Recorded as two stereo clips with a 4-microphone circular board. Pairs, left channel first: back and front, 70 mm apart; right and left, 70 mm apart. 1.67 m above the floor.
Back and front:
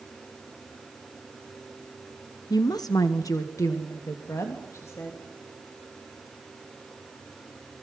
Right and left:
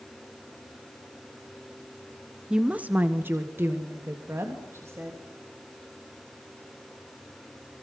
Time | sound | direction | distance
2.5 | a woman speaking | 170° left | 1.0 m